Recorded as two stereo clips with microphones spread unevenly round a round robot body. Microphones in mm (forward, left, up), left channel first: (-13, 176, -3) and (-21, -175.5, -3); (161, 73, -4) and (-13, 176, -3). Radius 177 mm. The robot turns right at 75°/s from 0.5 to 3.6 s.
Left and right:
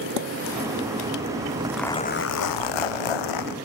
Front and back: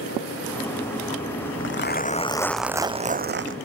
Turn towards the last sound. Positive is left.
turn(degrees=135)